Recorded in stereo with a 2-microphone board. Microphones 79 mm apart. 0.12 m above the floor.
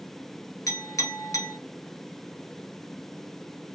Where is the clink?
45° left (ahead or behind), 1.1 m.